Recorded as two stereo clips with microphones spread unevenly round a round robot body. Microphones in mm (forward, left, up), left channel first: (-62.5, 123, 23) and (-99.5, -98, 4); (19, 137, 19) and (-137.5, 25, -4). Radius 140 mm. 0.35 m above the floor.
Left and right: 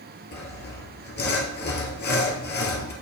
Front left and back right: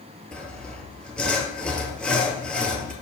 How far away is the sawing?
About 2 m.